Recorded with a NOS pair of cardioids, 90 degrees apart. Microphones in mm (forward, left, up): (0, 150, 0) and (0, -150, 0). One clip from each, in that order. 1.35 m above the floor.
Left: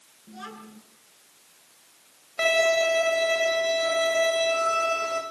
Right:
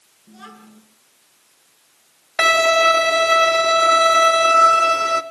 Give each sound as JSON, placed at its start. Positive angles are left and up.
{"t": 0.3, "sound": "a child speaking", "azimuth_deg": 0, "distance_m": 8.5}
{"t": 2.4, "sound": "a violin", "azimuth_deg": -60, "distance_m": 1.8}